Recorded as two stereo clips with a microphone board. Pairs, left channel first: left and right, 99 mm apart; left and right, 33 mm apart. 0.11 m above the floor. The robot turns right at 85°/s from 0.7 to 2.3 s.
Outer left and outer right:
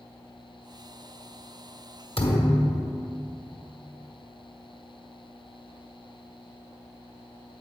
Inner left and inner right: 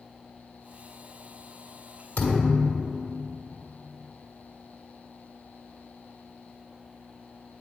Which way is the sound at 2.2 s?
70° left (ahead or behind).